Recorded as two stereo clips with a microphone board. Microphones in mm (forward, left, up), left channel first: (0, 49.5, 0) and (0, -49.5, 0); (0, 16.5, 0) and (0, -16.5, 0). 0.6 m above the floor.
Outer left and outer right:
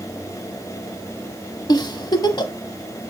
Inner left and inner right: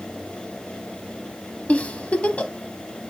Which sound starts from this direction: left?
A giggle, at 1.7 s.